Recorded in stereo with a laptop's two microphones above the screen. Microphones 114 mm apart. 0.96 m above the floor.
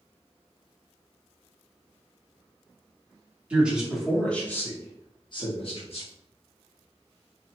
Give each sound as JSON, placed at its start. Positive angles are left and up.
{"t": 3.5, "sound": "a man speaking", "side_deg": -10, "distance_m": 1.4}